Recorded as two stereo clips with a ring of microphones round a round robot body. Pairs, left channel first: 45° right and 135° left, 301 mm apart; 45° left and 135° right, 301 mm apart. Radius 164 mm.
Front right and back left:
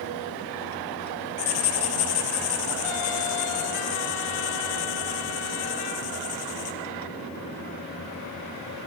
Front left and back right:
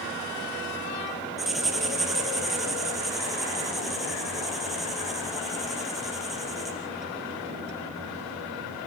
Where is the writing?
45° right, 3 m.